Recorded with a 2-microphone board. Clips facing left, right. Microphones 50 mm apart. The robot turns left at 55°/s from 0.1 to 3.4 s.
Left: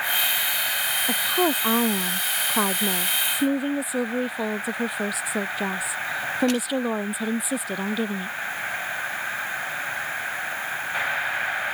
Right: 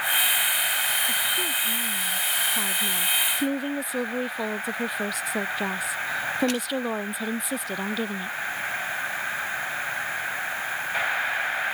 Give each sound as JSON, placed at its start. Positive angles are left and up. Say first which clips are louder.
{"t": 1.1, "sound": "a woman speaking", "louder": "left 4 dB", "azimuth_deg": 130}